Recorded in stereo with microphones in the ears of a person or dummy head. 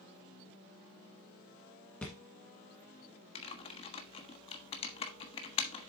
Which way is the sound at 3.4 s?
30° left (ahead or behind).